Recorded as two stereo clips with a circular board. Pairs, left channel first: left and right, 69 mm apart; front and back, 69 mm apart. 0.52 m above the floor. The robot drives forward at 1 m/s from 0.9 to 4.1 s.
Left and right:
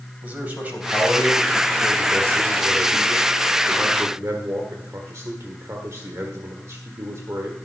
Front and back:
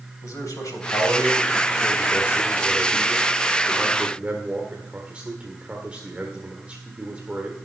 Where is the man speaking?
25° right, 3 m; by 7.5 s 110° right, 1.7 m.